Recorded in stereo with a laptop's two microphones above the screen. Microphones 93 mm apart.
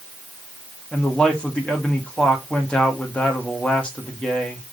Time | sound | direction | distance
0.9 | a man speaking | 10° left (ahead or behind) | 2 m